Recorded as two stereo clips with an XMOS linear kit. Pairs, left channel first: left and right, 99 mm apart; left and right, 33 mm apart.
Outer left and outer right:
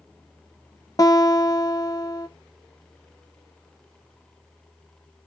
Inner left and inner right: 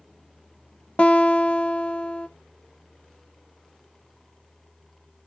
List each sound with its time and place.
1.0 s a guitar: 35° left (ahead or behind), 0.5 m